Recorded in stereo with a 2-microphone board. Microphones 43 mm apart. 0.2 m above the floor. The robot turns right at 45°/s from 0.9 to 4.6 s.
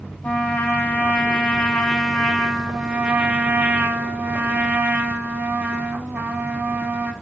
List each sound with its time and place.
0.2 s a trumpet: 120° left, 0.6 m; by 7.1 s 75° right, 0.6 m